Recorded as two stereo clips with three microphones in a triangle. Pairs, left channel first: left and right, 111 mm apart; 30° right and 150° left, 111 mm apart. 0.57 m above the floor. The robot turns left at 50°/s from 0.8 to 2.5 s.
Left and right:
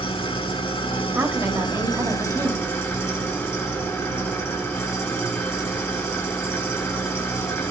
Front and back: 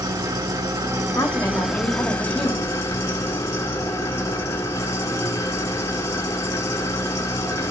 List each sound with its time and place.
0.0 s an engine running: 110° left, 1.4 m; by 7.7 s 25° left, 1.4 m
1.1 s a woman speaking: 45° right, 1.2 m; by 2.7 s 115° right, 1.2 m